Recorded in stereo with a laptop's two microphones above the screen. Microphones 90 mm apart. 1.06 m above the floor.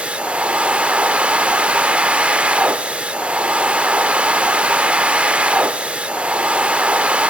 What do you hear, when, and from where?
0.0 s a machine running: 10° right (ahead or behind), 0.8 m